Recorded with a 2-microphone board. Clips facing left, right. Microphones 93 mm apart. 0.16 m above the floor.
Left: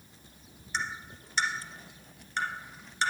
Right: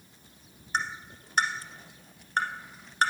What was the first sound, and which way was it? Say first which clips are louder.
Tapping: right 3 dB; 50° right (ahead or behind).